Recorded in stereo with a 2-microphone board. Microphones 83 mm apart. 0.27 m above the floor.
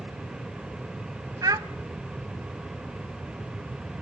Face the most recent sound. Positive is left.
turn(degrees=-45)  # may be behind; listen again after turning